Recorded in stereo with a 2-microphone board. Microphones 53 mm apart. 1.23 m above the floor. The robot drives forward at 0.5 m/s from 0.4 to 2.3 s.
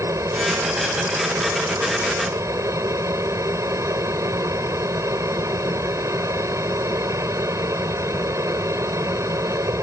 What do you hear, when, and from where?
0.0 s an aircraft: 75° right (ahead or behind)